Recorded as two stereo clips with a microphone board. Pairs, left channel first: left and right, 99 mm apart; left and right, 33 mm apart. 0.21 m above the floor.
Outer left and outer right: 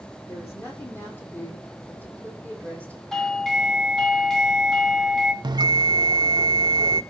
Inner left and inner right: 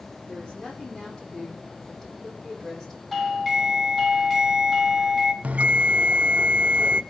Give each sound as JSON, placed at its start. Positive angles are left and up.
{"t": 0.3, "sound": "a woman speaking", "side_deg": 25, "distance_m": 10.0}
{"t": 3.1, "sound": "a doorbell", "side_deg": 5, "distance_m": 2.0}
{"t": 5.4, "sound": "a bell", "side_deg": -45, "distance_m": 0.6}